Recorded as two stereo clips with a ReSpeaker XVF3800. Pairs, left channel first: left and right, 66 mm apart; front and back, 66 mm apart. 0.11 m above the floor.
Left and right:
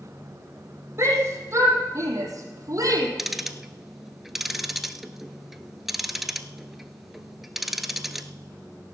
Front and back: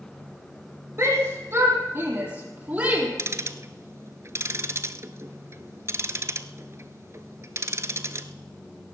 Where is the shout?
135° right, 5.5 m; by 3.1 s 115° right, 4 m.